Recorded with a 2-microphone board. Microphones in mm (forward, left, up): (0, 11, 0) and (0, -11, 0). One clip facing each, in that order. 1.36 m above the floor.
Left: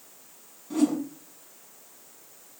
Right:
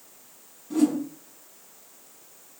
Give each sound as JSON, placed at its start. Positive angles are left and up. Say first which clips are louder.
{"t": 0.7, "sound": "a whoosh", "louder": "right 2 dB", "side_deg": 15, "distance_m": 6.5}